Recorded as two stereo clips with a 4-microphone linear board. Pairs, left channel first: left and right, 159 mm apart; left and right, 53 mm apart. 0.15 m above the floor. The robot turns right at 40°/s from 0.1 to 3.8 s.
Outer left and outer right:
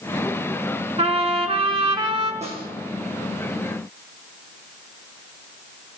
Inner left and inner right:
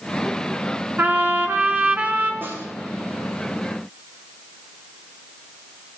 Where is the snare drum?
40° right (ahead or behind), 3 m; by 2.7 s 30° right (ahead or behind), 3 m.